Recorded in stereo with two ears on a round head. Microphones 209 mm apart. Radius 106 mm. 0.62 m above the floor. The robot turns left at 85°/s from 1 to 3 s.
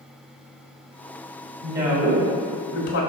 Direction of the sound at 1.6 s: 155° right.